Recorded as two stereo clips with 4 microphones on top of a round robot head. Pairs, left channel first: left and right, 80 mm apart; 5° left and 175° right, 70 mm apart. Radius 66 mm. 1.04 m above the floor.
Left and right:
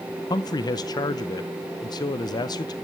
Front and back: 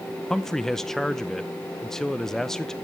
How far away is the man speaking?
About 0.6 m.